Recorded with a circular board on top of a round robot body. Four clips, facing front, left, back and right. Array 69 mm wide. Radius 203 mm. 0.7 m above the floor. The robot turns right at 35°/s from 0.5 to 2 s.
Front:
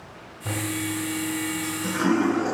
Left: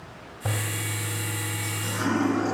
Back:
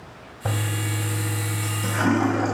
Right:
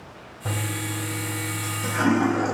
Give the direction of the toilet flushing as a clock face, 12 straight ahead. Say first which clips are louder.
Right 2 dB, even; 7 o'clock.